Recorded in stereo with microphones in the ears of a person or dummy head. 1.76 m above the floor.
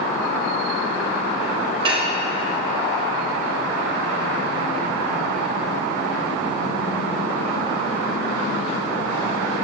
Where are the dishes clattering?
25° right (ahead or behind), 1.1 m.